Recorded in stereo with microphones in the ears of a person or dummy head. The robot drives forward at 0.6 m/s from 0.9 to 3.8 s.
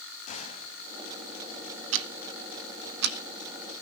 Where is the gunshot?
40° left (ahead or behind), 3.5 m.